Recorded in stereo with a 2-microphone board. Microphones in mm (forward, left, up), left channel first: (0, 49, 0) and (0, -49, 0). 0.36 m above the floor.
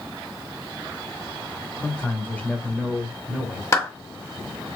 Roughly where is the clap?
Left.